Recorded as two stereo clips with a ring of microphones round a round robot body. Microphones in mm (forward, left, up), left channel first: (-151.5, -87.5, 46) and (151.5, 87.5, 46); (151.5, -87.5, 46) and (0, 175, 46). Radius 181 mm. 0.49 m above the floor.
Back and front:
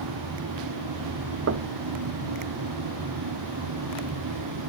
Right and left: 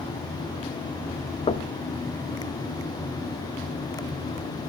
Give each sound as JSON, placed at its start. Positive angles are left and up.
{"t": 1.5, "sound": "knocking", "azimuth_deg": 5, "distance_m": 0.8}